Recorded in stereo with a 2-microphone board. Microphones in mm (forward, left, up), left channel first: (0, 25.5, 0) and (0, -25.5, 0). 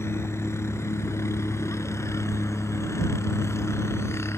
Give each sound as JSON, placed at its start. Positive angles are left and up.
{"t": 0.0, "sound": "a helicopter", "side_deg": 60}